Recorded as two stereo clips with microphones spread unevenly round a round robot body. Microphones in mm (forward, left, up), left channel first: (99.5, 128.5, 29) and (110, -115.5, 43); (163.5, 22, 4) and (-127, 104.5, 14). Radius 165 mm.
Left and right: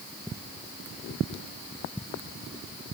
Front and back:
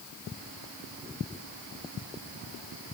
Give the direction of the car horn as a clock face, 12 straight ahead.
No car horn in this recording.